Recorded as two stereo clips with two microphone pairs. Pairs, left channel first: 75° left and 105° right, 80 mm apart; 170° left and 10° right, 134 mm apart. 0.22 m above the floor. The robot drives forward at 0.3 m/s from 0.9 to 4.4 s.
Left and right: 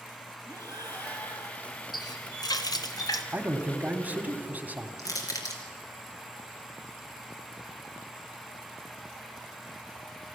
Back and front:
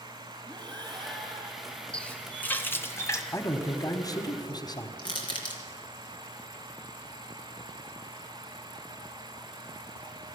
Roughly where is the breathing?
Ahead left.